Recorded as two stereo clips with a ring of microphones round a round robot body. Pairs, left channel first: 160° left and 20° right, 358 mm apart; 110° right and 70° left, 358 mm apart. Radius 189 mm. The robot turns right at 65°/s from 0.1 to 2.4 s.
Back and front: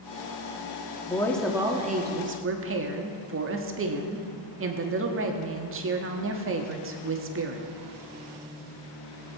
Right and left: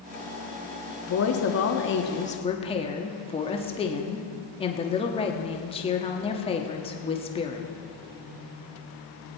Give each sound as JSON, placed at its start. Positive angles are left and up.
{"t": 1.1, "sound": "a woman speaking", "azimuth_deg": -135, "distance_m": 1.4}